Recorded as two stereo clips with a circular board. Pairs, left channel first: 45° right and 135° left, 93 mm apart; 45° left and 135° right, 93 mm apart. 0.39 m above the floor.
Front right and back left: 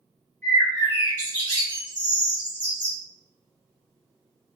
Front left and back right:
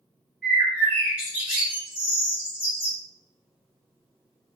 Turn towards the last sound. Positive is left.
turn(degrees=-85)